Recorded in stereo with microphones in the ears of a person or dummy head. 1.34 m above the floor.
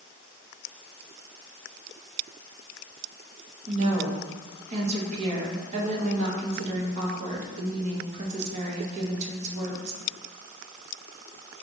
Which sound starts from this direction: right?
A woman speaking, at 3.7 s.